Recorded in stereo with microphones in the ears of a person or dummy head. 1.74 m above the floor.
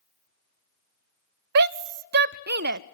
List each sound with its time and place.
1.6 s a shout: 60° right (ahead or behind), 0.5 m